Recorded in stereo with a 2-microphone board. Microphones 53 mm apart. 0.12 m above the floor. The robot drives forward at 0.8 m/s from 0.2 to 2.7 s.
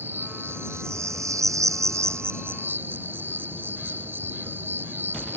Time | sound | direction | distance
0.0 | an insect | 40° right (ahead or behind) | ?